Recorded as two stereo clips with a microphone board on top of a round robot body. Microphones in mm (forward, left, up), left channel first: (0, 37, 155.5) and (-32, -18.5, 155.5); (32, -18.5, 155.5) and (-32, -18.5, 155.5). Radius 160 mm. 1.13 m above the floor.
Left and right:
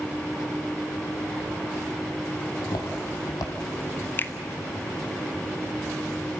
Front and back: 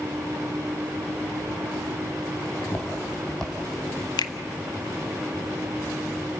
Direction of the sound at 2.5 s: 60° left.